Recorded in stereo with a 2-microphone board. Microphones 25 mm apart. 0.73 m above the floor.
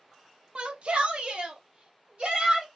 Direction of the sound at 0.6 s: 50° right (ahead or behind).